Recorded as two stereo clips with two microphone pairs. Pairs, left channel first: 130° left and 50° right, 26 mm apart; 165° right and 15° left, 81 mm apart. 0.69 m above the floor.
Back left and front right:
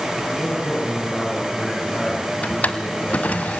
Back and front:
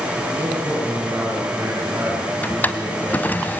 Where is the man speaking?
85° left, 8 m.